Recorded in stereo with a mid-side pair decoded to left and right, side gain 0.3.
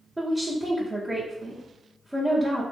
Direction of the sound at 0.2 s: 15° right.